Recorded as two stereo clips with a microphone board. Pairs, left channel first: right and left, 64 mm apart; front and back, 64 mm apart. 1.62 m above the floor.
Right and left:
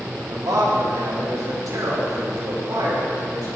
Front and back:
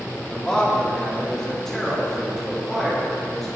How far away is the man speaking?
About 4 m.